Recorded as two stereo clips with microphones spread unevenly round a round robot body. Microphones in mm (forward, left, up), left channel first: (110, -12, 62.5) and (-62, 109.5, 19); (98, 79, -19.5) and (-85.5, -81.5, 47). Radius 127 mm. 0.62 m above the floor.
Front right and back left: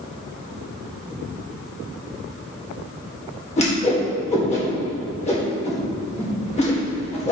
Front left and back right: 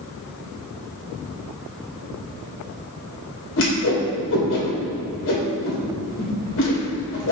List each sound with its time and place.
3.6 s a whoosh: 25° left, 2.5 m